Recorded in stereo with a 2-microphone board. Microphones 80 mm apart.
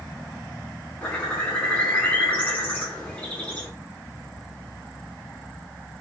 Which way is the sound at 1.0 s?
20° left (ahead or behind).